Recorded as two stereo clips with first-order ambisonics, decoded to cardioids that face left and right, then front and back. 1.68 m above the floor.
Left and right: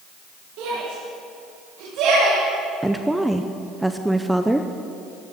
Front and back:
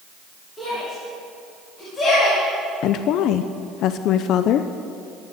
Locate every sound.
0.6 s a shout: 75° right, 5 m; by 2.4 s 55° right, 3.5 m
2.8 s a woman speaking: 5° right, 0.5 m